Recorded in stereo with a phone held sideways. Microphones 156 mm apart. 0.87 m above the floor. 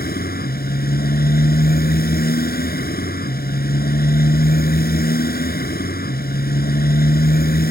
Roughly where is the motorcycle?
Left.